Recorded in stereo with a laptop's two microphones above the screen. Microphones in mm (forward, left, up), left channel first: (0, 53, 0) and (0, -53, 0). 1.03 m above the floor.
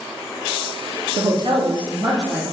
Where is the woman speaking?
40° right (ahead or behind), 0.6 m; by 2.4 s 35° right (ahead or behind), 0.9 m.